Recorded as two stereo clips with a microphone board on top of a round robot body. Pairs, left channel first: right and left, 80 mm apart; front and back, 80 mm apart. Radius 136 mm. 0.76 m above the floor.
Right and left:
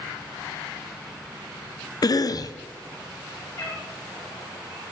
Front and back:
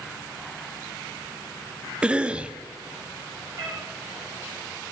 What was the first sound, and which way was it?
A cough, 105° right.